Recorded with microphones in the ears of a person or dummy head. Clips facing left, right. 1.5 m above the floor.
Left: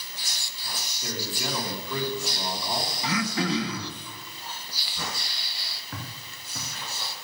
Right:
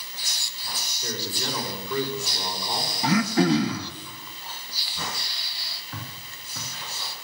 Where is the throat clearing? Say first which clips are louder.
Right 8 dB; 35° right (ahead or behind), 1.3 m.